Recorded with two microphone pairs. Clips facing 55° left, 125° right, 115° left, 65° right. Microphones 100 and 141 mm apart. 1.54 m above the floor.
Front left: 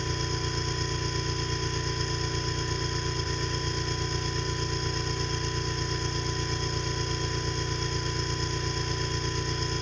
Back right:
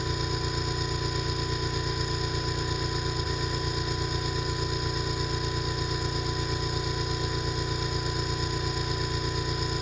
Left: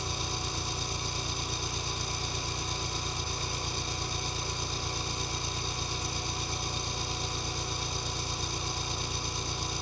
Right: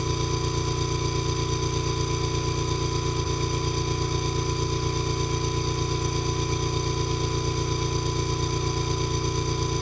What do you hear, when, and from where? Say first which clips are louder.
0.0 s an engine running: back right 1 dB, right 10 dB; 40° right